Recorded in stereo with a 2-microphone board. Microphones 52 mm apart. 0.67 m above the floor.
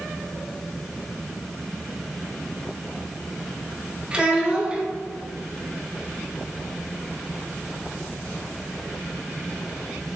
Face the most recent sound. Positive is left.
turn(degrees=-20)  # may be behind; listen again after turning